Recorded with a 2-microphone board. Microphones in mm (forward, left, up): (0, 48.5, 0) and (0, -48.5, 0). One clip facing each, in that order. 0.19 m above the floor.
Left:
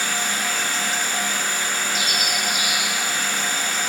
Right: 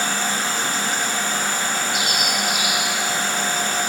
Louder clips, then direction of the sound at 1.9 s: Right 2 dB; 35° left (ahead or behind).